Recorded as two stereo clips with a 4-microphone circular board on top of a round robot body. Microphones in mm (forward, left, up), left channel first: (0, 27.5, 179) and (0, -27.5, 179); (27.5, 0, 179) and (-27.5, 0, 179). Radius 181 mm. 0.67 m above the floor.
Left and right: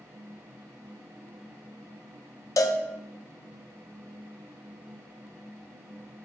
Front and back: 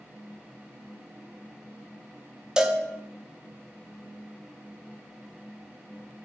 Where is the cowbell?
105° left, 0.6 m.